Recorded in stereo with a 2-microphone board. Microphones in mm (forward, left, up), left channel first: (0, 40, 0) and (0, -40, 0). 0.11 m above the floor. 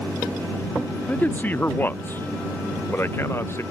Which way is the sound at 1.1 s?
20° left (ahead or behind).